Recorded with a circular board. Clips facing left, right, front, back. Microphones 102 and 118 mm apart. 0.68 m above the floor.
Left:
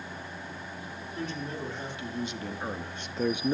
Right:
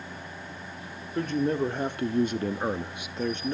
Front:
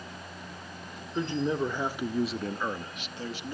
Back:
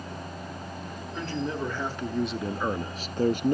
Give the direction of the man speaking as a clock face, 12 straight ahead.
2 o'clock.